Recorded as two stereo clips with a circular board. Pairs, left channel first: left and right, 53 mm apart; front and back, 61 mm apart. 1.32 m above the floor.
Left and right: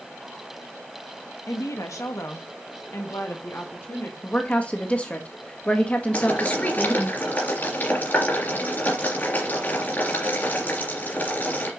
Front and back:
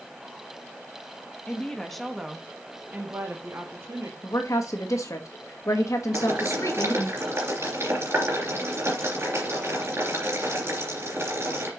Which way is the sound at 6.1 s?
140° left.